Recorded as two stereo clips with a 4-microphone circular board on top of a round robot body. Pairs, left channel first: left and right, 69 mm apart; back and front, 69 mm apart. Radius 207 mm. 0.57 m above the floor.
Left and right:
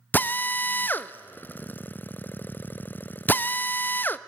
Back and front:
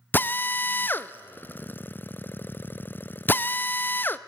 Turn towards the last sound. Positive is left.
turn(degrees=135)